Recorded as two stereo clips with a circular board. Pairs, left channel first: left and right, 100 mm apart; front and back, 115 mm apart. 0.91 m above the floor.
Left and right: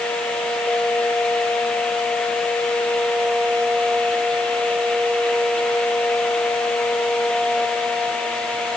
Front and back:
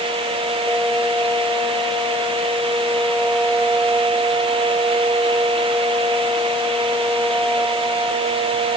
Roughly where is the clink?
No clink in this recording.